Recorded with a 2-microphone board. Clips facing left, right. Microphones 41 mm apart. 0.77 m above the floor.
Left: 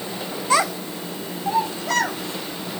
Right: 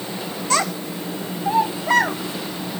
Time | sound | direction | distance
0.5 | a child speaking | 10° left (ahead or behind) | 0.6 m